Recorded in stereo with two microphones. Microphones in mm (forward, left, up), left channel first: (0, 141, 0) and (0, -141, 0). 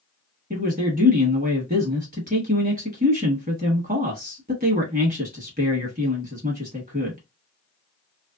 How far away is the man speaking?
About 1.1 m.